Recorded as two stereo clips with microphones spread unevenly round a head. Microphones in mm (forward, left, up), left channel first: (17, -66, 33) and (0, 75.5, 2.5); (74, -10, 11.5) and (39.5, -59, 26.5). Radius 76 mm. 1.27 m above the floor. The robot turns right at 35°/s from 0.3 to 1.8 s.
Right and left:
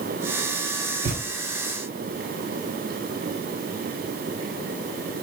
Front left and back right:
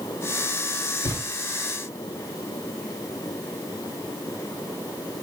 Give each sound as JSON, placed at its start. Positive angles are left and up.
{"t": 1.0, "sound": "a thud", "azimuth_deg": 60, "distance_m": 2.5}